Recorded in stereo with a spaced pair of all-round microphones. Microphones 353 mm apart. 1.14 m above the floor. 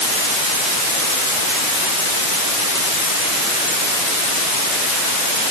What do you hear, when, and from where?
Only background noise.